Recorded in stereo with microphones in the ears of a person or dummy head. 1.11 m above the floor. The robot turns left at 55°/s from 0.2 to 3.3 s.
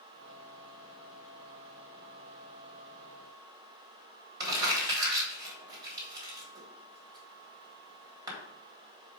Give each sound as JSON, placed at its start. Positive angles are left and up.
{"t": 4.4, "sound": "crumpling", "side_deg": -15, "distance_m": 3.0}